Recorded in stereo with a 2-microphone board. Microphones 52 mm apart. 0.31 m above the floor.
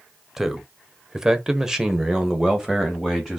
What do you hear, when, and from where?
0.4 s a man speaking: 10° right (ahead or behind), 1.2 m